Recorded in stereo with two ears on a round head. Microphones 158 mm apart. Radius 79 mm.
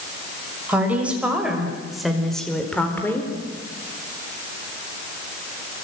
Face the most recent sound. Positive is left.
turn(degrees=15)  # may be behind; listen again after turning